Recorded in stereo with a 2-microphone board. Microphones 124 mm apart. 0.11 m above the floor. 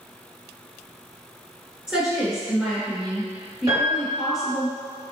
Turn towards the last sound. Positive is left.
turn(degrees=-40)  # may be behind; listen again after turning